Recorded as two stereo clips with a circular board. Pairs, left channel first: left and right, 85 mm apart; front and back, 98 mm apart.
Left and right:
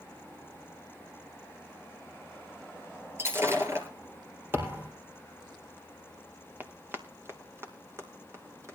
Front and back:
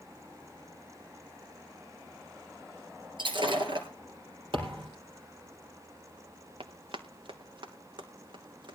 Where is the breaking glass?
150° right, 3 m.